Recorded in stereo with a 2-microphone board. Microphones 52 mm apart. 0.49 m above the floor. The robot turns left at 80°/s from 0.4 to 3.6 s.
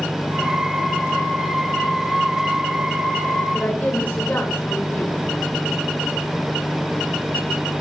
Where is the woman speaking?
30° left (ahead or behind), 1.9 m; by 5.2 s 35° left (ahead or behind), 1.9 m.